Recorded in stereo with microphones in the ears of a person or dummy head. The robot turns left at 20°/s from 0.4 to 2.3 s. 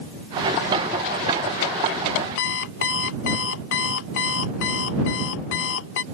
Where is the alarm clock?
60° left (ahead or behind).